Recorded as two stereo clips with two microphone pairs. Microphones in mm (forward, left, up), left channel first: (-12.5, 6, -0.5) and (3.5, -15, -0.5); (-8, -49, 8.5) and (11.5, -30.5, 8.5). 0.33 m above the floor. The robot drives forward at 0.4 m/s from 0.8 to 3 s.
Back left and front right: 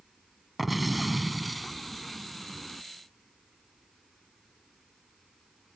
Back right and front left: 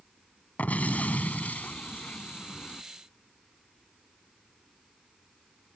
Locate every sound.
0.6 s an explosion: 140° right; by 2.8 s 150° right